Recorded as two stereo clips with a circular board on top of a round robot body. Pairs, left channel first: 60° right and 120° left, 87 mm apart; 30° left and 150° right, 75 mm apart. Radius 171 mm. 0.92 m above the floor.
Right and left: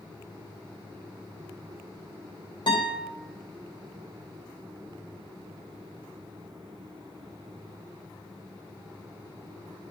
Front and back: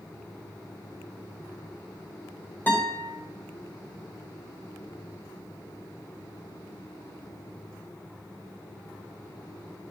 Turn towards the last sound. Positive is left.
turn(degrees=-35)